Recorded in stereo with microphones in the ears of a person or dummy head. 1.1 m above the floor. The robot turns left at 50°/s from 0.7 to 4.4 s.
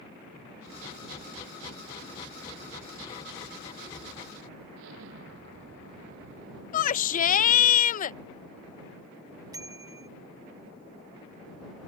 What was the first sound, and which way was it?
An explosion, 70° right (ahead or behind).